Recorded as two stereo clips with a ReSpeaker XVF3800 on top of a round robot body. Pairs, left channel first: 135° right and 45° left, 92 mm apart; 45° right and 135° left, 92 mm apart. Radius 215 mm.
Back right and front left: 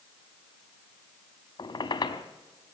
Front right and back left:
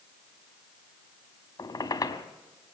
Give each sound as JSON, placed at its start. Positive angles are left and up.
{"t": 1.6, "sound": "a squeak", "azimuth_deg": -90, "distance_m": 0.9}